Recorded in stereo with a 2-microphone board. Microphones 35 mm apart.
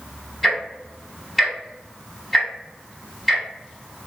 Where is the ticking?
Centre (ahead or behind), 1.4 m.